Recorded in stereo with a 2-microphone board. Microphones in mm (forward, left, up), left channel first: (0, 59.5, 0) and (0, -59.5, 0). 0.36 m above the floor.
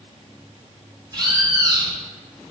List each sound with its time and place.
1.1 s a bird: 35° right (ahead or behind), 1.2 m